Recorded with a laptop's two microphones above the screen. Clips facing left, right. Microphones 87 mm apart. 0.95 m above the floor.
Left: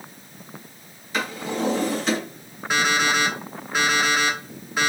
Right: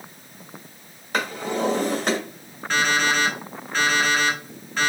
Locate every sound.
1.1 s a drawer: 55° right (ahead or behind), 1.9 m
2.7 s an alarm clock: 10° left (ahead or behind), 2.0 m